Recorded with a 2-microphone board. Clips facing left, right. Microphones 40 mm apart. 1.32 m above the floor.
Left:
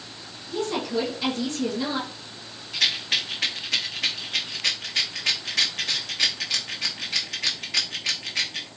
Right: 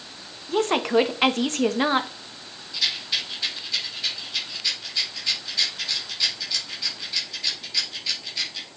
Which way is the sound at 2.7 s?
75° left (ahead or behind).